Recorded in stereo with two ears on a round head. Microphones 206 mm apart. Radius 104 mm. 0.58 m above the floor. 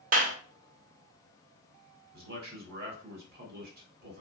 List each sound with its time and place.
0.1 s a clap: 40° right (ahead or behind), 1.0 m
2.1 s a man speaking: 45° right (ahead or behind), 1.5 m